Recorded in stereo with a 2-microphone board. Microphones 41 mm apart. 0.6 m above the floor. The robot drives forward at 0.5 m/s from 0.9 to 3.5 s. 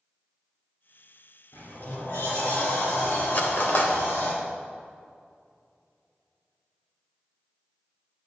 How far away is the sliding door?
About 3 m.